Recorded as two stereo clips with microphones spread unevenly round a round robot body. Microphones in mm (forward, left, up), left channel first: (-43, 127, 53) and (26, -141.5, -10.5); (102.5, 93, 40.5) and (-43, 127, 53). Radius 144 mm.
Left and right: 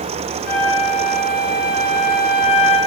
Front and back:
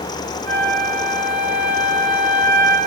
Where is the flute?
170° right, 2.0 m.